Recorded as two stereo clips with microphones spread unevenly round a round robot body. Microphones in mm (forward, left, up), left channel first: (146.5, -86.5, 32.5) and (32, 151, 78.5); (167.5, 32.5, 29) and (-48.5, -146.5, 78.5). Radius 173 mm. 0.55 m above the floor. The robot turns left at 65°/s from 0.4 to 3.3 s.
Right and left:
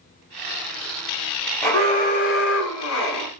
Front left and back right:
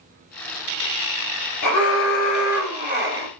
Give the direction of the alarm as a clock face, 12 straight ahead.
11 o'clock.